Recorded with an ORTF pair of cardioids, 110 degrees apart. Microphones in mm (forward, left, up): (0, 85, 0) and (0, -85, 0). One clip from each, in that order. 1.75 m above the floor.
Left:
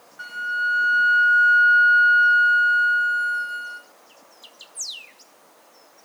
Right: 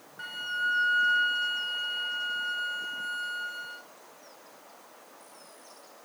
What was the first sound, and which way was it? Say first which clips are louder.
A flute: left 6 dB; 20° left.